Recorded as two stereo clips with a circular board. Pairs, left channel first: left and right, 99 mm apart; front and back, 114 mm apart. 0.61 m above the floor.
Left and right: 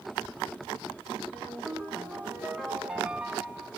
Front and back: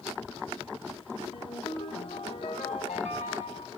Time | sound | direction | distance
1.3 | a ringtone | 5° right | 4.5 m